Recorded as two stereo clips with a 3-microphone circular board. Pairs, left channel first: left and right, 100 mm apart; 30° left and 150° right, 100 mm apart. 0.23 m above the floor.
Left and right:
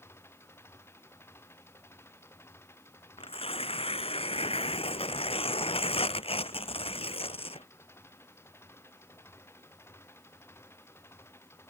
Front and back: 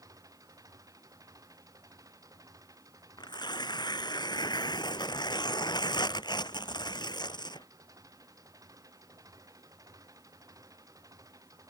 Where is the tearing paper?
75° left.